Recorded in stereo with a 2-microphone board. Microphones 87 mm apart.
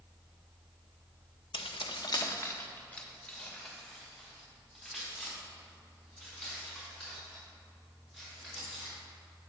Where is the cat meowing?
No cat meowing in this recording.